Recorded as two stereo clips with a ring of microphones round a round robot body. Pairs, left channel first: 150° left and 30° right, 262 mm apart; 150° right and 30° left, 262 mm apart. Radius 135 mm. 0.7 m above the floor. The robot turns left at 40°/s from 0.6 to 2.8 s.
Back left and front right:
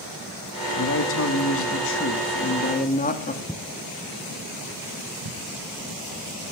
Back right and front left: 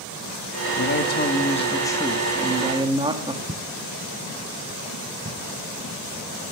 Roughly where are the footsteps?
Left.